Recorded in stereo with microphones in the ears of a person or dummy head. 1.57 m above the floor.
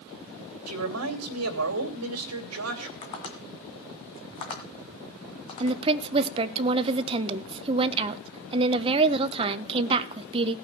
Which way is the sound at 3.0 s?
30° left (ahead or behind).